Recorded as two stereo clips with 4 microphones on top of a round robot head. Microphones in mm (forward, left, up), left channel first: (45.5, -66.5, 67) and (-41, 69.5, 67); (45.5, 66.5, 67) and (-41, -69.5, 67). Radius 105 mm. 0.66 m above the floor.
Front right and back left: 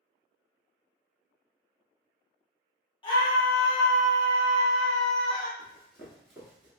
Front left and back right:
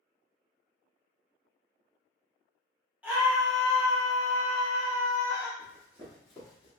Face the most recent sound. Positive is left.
turn(degrees=100)